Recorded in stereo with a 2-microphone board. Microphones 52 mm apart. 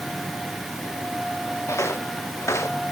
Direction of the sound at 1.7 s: 65° left (ahead or behind).